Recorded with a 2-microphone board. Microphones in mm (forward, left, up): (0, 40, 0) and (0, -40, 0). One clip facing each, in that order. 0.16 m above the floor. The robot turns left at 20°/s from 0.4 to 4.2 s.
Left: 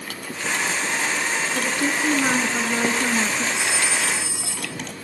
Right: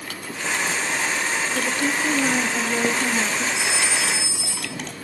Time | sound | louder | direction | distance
1.6 | a woman speaking | even | 135° left | 1.4 m
3.5 | a phone ringing | even | 30° left (ahead or behind) | 1.8 m